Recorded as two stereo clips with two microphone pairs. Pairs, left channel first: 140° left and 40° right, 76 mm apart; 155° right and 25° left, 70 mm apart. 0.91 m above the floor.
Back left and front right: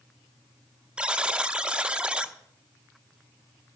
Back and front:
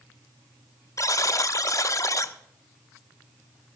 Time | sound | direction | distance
1.0 | a buzzer | 120° right | 0.6 m